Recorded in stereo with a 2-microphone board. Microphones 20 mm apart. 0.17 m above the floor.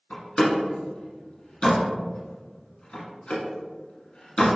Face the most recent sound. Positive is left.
turn(degrees=60)  # may be behind; listen again after turning